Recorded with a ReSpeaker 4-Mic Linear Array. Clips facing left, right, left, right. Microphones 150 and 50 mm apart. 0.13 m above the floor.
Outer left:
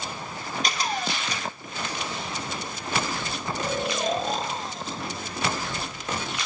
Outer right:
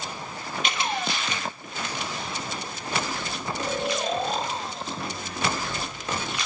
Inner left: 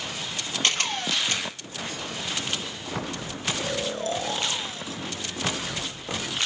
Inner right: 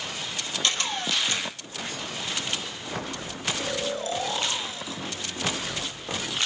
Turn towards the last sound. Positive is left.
turn(degrees=45)  # may be behind; listen again after turning